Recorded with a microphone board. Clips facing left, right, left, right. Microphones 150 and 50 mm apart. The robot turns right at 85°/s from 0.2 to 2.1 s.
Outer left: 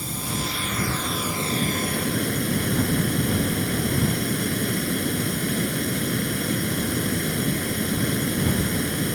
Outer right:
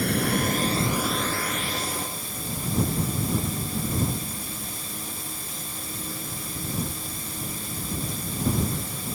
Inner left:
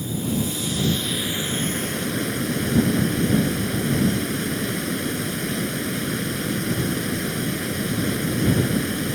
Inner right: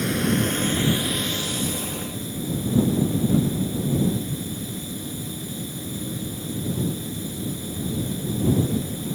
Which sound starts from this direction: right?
Running water, at 0.0 s.